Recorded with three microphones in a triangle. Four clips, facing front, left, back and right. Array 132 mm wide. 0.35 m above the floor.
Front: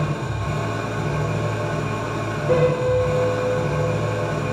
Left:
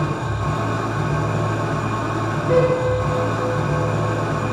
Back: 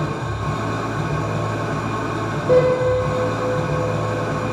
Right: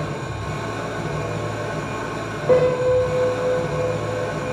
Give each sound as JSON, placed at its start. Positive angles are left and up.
{"t": 0.0, "sound": "an engine running", "azimuth_deg": 125, "distance_m": 3.0}
{"t": 2.5, "sound": "a piano", "azimuth_deg": -105, "distance_m": 4.5}